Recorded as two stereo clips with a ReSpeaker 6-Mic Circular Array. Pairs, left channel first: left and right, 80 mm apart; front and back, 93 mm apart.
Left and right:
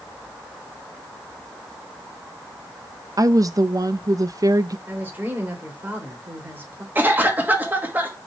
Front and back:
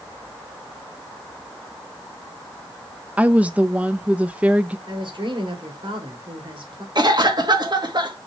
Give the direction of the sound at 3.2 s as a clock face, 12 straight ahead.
4 o'clock.